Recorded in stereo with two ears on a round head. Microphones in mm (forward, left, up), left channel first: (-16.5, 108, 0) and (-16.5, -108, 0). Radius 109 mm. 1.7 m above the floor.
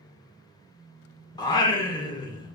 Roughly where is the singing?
Centre.